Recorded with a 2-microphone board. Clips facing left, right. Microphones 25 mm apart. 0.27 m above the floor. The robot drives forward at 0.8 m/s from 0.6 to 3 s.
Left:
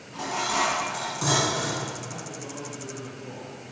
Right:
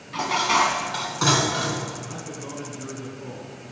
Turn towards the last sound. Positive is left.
turn(degrees=-50)  # may be behind; listen again after turning